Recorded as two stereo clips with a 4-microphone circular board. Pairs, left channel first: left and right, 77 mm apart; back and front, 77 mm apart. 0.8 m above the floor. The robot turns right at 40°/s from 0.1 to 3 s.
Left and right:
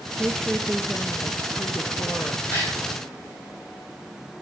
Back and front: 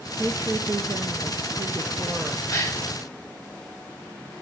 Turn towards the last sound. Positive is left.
turn(degrees=165)